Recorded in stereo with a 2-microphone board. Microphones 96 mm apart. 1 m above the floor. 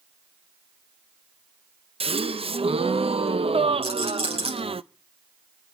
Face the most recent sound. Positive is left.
turn(degrees=-75)  # may be behind; listen again after turning